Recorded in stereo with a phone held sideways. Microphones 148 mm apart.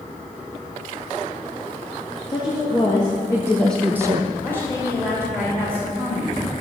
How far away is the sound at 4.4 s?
About 2.5 m.